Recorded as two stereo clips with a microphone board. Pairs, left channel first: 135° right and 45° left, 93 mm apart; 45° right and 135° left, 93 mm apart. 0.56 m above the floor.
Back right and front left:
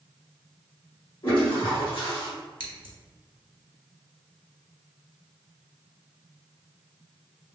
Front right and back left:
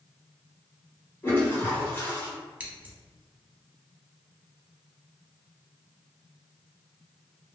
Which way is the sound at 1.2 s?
110° right.